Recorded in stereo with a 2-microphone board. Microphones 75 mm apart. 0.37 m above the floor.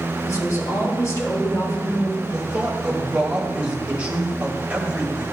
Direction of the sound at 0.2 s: 45° left (ahead or behind).